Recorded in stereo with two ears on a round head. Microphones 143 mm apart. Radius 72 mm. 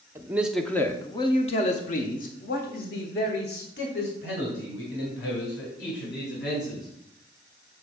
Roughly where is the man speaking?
Centre.